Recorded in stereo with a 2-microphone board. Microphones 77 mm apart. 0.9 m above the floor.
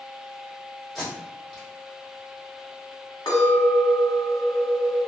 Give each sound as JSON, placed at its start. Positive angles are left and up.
{"t": 0.9, "sound": "tape being pulled", "side_deg": 0, "distance_m": 1.5}
{"t": 3.3, "sound": "a clink", "side_deg": 65, "distance_m": 1.3}